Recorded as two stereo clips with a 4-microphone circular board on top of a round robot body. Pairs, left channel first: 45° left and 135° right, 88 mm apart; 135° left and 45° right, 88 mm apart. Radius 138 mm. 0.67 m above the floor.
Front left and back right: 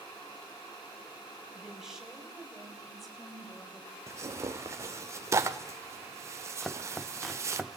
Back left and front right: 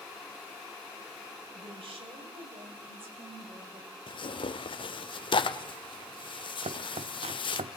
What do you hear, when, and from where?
1.6 s a woman speaking: 55° right, 6 m; by 4.0 s 40° right, 5.5 m
4.1 s tearing paper: 165° left, 1.2 m
6.6 s chopping: 45° right, 0.8 m